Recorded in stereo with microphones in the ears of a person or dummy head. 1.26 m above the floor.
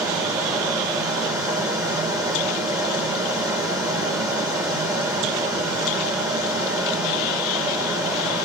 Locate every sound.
0.0 s a fan: 15° right (ahead or behind), 1.4 m